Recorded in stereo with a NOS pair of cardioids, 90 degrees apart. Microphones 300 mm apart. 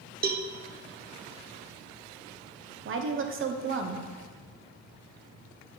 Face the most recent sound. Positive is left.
turn(degrees=-45)